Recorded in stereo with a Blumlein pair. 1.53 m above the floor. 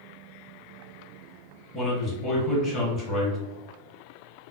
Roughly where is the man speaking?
Ahead.